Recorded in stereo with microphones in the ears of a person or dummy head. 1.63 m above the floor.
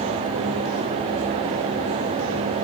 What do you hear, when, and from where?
Only background noise.